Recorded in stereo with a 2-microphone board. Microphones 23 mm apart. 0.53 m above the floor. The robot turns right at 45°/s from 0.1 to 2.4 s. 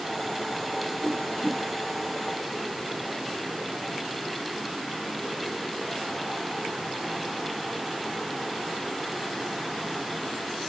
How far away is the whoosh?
About 1.6 m.